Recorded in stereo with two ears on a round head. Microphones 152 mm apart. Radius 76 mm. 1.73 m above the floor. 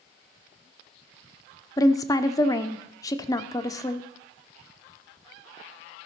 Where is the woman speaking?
20° left (ahead or behind), 0.6 m.